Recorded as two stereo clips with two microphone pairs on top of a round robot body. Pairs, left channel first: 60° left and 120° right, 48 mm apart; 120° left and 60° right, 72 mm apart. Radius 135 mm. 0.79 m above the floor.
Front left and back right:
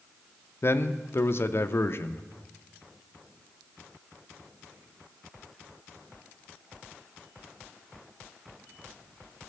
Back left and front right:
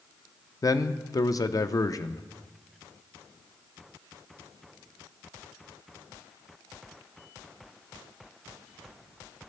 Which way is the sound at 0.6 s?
90° left.